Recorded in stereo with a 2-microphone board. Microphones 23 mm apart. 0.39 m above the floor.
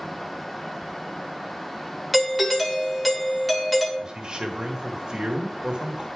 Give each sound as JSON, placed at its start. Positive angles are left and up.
{"t": 2.1, "sound": "a doorbell", "side_deg": 5, "distance_m": 1.5}
{"t": 4.0, "sound": "a man speaking", "side_deg": -35, "distance_m": 1.4}